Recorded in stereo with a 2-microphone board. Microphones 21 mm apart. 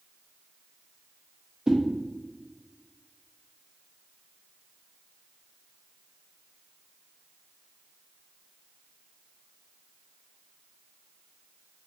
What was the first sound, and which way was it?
A whoosh, 30° right (ahead or behind).